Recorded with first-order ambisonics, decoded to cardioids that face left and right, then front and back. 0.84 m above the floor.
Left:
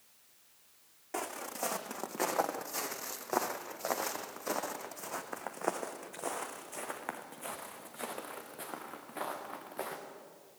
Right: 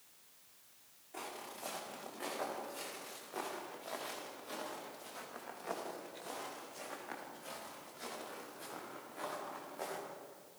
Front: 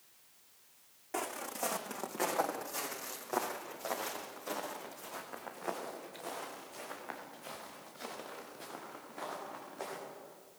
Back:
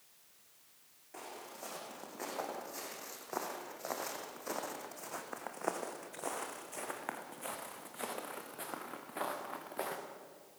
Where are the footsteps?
50° left, 3 m; by 10.0 s 145° left, 6 m.